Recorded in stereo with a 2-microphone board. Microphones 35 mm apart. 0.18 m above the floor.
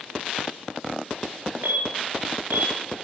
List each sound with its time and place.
1.6 s an alarm: 65° right (ahead or behind), 2.5 m